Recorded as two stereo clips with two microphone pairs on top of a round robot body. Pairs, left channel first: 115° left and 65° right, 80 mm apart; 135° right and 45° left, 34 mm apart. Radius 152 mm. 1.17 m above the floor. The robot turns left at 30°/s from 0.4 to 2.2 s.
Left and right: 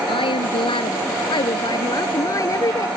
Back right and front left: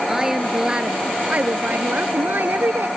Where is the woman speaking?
120° left; by 2.9 s 65° left.